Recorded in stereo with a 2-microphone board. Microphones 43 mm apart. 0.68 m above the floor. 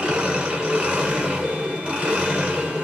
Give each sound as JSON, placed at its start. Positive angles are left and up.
{"t": 0.0, "sound": "an engine running", "side_deg": -25, "distance_m": 1.7}